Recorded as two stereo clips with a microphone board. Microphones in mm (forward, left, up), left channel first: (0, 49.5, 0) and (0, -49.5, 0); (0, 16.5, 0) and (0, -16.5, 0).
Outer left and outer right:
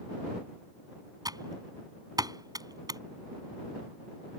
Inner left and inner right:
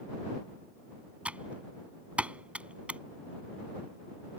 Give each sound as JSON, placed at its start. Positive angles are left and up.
{"t": 1.2, "sound": "typing on a keyboard", "side_deg": -40}